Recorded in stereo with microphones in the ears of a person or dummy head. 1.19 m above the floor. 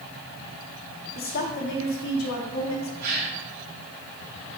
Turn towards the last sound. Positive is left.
turn(degrees=-50)  # may be behind; listen again after turning